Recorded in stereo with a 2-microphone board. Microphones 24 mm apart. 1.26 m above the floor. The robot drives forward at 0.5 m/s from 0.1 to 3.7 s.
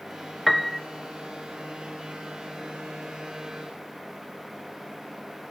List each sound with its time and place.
0.5 s a piano: 5° left (ahead or behind), 0.5 m; by 0.8 s 10° left (ahead or behind), 0.5 m